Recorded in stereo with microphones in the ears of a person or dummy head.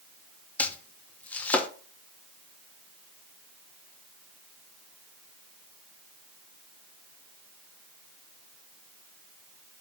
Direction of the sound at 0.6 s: 10° left (ahead or behind).